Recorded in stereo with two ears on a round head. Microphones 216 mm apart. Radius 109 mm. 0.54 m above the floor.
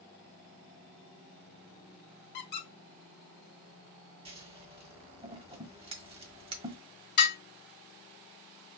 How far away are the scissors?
About 0.9 m.